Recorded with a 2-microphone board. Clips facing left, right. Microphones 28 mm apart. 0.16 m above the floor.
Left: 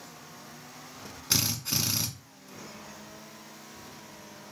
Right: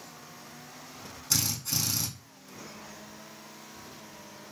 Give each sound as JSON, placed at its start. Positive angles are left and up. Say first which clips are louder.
{"t": 1.3, "sound": "a drill", "louder": "left 2 dB", "side_deg": 30, "distance_m": 0.6}